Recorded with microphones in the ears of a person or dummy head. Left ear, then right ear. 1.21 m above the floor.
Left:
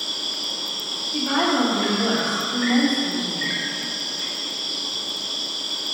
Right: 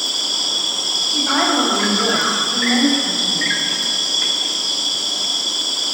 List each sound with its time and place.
0.0 s an insect: 40° right (ahead or behind), 0.9 m
1.1 s a woman speaking: centre (ahead or behind), 1.8 m